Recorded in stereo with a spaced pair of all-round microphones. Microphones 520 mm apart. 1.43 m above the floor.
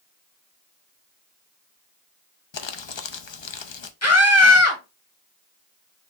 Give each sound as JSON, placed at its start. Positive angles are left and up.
{"t": 2.5, "sound": "crumpling", "side_deg": 60, "distance_m": 0.6}
{"t": 4.0, "sound": "a scream", "side_deg": 30, "distance_m": 1.4}